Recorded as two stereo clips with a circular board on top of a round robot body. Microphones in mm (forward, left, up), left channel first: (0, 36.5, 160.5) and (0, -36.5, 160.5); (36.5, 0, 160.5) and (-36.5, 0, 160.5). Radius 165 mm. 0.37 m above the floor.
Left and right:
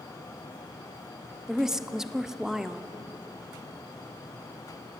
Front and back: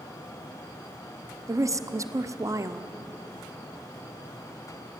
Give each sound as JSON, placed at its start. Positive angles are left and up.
{"t": 1.5, "sound": "a woman speaking", "azimuth_deg": -170, "distance_m": 1.5}